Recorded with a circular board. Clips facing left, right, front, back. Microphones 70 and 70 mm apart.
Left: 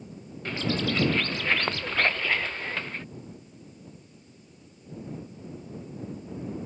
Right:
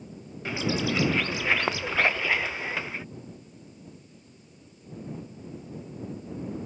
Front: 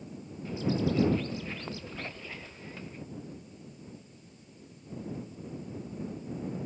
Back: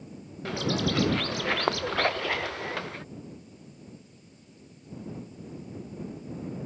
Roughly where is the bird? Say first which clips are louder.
Right 1 dB, back 1 dB; behind.